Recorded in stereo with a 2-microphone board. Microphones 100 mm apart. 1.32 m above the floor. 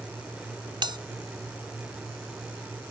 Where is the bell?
55° right (ahead or behind).